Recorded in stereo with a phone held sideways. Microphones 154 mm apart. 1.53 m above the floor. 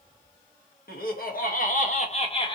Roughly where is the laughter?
Left.